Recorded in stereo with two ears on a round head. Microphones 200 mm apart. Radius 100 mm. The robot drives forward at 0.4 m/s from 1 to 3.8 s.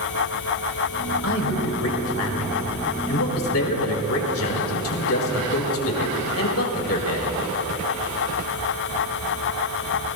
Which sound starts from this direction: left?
A man speaking, at 1.2 s.